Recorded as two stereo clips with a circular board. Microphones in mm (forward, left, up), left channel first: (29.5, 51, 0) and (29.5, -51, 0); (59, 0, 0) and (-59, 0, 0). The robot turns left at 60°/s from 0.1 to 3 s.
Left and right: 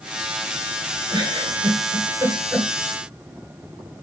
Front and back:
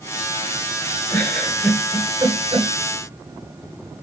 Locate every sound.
1.1 s a giggle: 65° right, 1.4 m; by 2.7 s 160° right, 1.4 m